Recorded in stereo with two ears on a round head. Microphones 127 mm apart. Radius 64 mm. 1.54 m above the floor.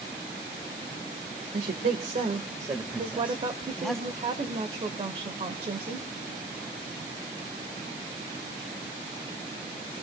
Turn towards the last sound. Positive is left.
turn(degrees=-40)  # may be behind; listen again after turning